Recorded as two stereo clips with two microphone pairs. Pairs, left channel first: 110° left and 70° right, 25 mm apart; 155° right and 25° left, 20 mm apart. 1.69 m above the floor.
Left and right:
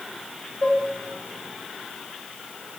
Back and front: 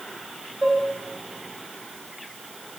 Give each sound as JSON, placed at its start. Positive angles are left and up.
{"t": 0.6, "sound": "dishes clattering", "azimuth_deg": 55, "distance_m": 8.0}